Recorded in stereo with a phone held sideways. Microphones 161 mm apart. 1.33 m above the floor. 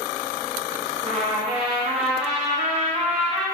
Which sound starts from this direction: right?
A trumpet, at 1.0 s.